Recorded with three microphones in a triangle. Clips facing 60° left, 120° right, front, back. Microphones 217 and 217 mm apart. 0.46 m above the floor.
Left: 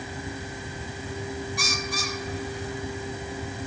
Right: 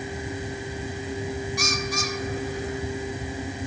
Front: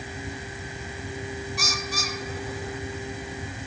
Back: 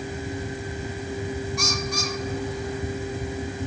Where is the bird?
85° right, 2.5 m.